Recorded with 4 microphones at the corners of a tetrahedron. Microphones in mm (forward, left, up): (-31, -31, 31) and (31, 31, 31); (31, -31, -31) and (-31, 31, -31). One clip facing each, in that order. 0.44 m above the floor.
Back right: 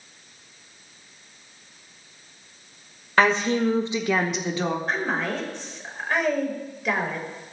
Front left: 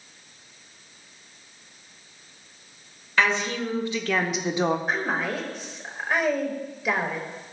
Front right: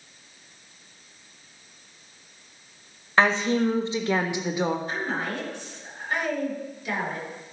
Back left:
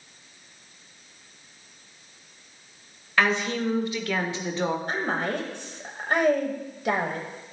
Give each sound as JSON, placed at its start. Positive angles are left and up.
{"t": 3.2, "sound": "a woman speaking", "azimuth_deg": -95, "distance_m": 1.3}
{"t": 4.9, "sound": "a woman speaking", "azimuth_deg": 130, "distance_m": 1.7}